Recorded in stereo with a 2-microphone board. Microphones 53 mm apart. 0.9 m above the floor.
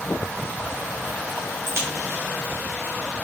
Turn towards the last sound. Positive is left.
turn(degrees=-55)  # may be behind; listen again after turning